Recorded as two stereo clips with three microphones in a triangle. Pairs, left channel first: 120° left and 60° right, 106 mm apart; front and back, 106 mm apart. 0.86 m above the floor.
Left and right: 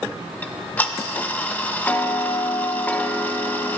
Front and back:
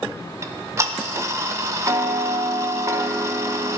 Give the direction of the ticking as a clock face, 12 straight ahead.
6 o'clock.